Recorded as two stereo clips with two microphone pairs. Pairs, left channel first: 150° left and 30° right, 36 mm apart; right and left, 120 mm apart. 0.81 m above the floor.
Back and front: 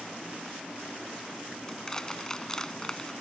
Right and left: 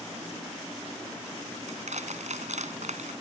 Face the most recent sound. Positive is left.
turn(degrees=75)